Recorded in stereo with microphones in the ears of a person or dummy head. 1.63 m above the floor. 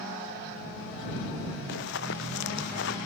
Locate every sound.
1.7 s running footsteps: 75° left (ahead or behind)